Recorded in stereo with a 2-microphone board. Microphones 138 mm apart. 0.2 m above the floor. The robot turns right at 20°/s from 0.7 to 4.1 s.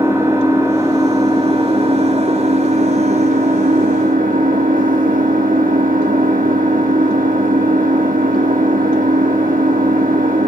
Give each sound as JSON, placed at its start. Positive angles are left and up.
{"t": 0.0, "sound": "an engine running", "azimuth_deg": -160, "distance_m": 2.5}